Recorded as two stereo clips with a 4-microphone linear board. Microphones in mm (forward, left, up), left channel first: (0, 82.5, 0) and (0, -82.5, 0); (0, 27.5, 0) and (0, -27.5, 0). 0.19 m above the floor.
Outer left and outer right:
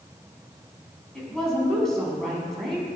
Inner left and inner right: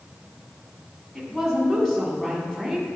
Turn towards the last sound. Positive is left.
turn(degrees=0)  # may be behind; listen again after turning